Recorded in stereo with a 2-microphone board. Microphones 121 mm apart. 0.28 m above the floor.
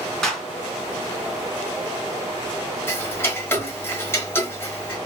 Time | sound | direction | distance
0.2 | a clap | 5° left (ahead or behind) | 2.5 m
2.9 | ticking | 20° left (ahead or behind) | 1.1 m